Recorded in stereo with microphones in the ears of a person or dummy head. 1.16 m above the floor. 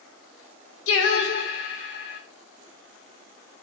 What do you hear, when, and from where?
0.9 s singing: 80° left, 1.0 m